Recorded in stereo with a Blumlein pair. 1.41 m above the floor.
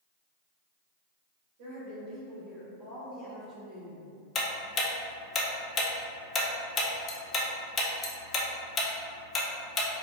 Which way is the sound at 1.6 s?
45° right.